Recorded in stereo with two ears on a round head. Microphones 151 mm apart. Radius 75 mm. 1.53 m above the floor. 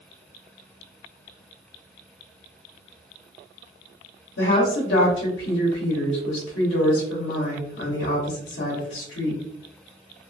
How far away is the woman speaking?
About 0.9 m.